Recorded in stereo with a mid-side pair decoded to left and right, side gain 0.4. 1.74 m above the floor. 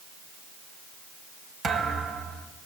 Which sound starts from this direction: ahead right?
A thud, at 1.6 s.